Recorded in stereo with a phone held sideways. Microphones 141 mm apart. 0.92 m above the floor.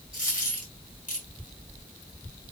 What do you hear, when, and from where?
0.1 s a dropped coin: 60° left (ahead or behind), 3.5 m